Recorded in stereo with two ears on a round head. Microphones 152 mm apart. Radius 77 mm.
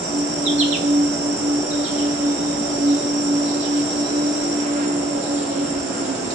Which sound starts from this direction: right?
An insect, at 0.0 s.